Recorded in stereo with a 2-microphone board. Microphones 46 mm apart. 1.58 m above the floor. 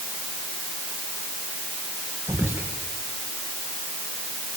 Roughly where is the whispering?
Right.